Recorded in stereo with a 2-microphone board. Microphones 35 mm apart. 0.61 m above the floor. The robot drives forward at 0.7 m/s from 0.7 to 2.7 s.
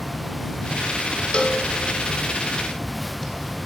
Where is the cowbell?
30° left (ahead or behind), 0.7 m; by 3.2 s 15° left (ahead or behind), 1.5 m.